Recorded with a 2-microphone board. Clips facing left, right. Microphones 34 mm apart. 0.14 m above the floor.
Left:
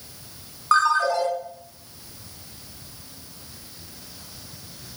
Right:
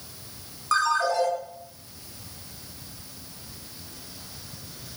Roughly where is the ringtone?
Left.